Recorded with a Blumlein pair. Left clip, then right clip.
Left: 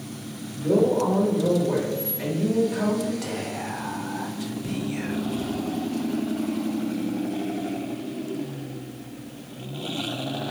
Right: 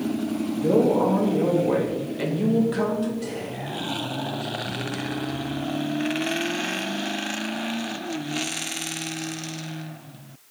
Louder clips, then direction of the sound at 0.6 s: Right 1 dB; 65° right.